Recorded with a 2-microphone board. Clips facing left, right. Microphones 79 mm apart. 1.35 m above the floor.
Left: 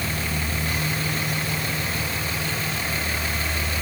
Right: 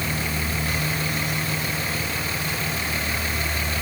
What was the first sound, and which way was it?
Only background noise.